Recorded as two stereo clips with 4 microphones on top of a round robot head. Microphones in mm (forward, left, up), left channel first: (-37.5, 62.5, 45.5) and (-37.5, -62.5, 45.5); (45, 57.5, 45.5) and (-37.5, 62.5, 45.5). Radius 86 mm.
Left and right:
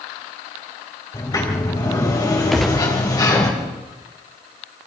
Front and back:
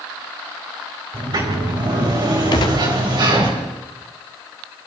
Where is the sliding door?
150° left, 4.5 m.